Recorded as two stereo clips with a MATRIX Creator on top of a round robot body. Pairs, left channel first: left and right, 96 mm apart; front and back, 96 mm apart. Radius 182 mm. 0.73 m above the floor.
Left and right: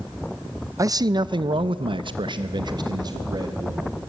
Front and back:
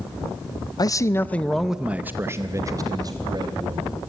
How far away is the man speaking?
About 0.8 m.